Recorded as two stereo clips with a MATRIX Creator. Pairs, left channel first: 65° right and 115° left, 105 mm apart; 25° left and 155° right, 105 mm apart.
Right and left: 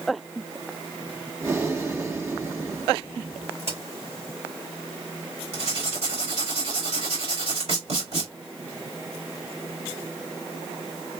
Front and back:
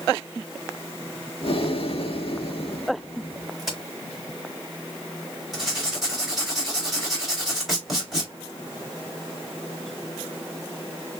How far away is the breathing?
About 1.1 m.